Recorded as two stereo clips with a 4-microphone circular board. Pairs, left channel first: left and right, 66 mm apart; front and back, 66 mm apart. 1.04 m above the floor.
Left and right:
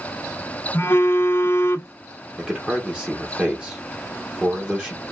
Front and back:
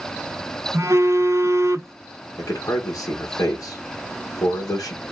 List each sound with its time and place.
0.7 s a phone buzzing: 140° left, 0.6 m
2.4 s a man speaking: 15° right, 1.1 m